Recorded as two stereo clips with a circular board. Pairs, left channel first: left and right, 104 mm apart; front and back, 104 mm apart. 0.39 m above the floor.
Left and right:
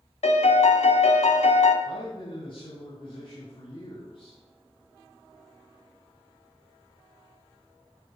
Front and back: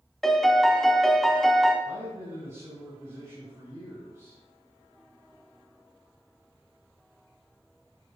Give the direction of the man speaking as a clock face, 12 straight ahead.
8 o'clock.